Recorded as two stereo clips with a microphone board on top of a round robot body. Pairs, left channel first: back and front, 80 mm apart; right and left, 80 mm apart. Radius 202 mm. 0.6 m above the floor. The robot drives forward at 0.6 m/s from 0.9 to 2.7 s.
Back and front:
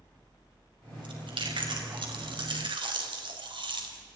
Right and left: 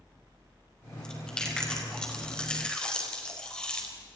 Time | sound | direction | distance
1.0 | chewing | 10° right | 6 m